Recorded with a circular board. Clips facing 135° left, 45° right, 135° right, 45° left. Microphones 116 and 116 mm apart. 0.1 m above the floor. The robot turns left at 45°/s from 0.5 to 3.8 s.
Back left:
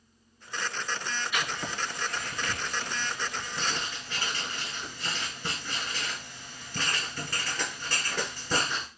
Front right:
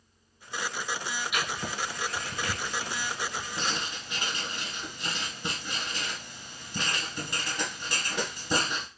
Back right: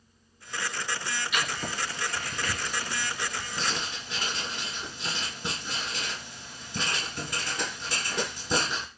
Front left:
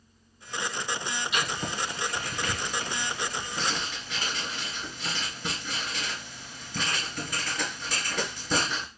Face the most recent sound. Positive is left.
turn(degrees=-100)